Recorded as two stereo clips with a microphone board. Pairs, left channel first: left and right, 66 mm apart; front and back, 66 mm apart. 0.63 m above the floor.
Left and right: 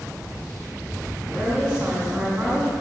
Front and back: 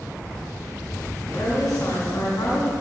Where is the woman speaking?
15° right, 5 m.